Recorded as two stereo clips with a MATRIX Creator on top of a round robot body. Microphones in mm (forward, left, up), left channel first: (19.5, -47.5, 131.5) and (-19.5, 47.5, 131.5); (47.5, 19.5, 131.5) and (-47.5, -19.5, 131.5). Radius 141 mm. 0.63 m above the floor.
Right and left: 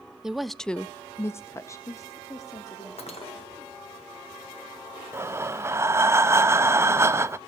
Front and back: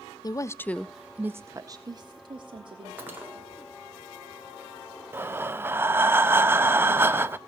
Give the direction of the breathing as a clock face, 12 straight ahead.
7 o'clock.